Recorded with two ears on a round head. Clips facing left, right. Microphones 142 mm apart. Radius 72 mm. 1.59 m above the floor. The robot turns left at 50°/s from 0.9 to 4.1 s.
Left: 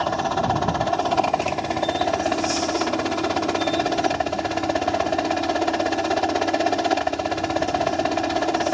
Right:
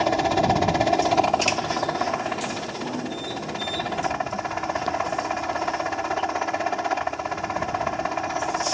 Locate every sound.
0.0 s a helicopter: 160° right; by 8.8 s 40° left